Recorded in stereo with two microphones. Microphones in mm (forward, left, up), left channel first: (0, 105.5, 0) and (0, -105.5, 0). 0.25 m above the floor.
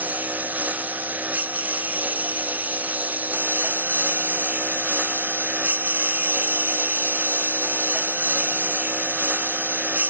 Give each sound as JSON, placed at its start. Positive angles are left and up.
{"t": 0.0, "sound": "a lawn mower", "side_deg": -10}